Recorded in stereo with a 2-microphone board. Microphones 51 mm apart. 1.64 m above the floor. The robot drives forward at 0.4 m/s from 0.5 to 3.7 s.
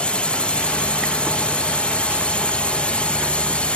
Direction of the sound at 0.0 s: 20° left (ahead or behind).